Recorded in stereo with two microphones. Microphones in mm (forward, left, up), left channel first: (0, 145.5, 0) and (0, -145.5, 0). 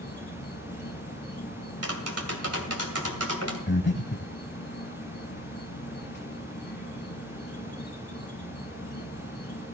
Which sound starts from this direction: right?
Tapping, at 1.8 s.